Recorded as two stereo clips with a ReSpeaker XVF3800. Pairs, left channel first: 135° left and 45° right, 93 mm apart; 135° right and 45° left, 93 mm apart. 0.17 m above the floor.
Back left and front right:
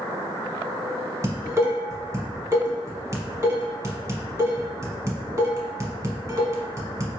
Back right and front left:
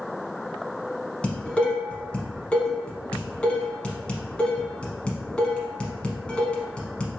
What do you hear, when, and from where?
1.2 s dishes clattering: 65° right, 0.9 m